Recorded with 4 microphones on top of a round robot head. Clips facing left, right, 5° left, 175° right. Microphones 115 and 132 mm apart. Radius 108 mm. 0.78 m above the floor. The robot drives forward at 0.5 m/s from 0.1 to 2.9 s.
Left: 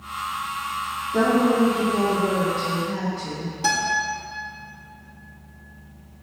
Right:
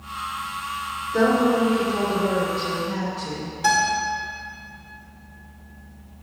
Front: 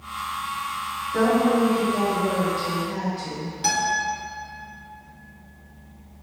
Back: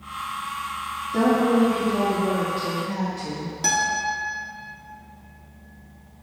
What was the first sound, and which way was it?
A woman speaking, 130° left.